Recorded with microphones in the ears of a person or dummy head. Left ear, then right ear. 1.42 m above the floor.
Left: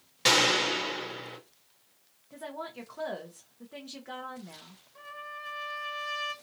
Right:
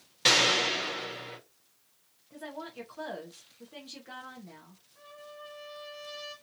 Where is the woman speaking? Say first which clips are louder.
Left 2 dB; 10° left (ahead or behind), 0.7 m.